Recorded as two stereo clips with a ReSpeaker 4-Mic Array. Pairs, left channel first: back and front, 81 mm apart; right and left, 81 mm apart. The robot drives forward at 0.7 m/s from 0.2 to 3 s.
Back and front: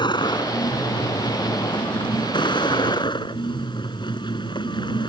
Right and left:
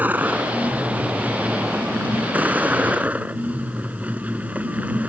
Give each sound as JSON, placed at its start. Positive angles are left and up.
{"t": 0.0, "sound": "a vehicle", "azimuth_deg": 160}